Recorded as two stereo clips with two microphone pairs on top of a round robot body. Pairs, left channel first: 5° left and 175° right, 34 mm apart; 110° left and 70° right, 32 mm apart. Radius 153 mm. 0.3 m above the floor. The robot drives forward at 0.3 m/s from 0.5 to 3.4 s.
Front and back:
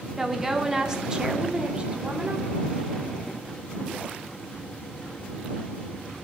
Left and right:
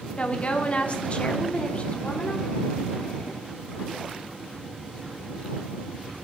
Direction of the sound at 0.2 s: 110° left.